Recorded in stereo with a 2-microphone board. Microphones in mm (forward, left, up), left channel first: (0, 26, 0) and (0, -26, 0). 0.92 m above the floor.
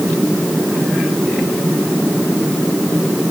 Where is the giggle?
No giggle in this recording.